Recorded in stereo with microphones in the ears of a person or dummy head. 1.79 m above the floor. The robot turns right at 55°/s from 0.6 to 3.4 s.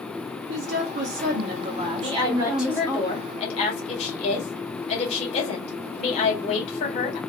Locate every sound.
0.5 s a woman speaking: 105° right, 0.8 m; by 3.0 s 25° left, 0.8 m
2.0 s a woman speaking: 40° right, 1.5 m; by 7.2 s 40° left, 1.5 m